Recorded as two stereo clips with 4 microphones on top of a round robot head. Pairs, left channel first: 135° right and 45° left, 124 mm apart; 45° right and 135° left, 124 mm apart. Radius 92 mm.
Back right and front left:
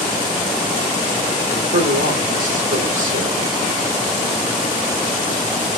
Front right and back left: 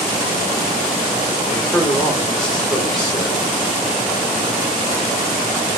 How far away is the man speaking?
About 5 m.